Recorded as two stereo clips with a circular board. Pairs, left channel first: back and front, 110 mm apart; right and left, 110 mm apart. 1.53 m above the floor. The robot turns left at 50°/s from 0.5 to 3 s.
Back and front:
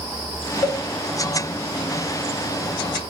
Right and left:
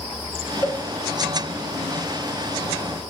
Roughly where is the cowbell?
Behind right.